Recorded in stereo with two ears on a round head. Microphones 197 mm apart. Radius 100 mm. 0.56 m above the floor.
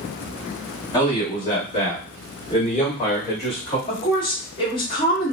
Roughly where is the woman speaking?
Left.